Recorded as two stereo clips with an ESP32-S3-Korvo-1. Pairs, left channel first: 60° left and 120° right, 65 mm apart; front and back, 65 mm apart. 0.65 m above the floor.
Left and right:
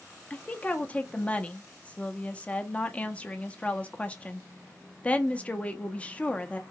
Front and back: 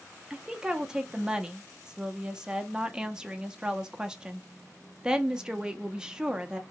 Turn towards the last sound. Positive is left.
turn(degrees=115)